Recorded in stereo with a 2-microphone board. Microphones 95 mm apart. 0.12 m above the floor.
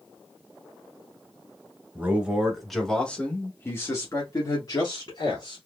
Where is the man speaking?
15° right (ahead or behind), 1.4 m; by 5.6 s 55° left (ahead or behind), 1.9 m.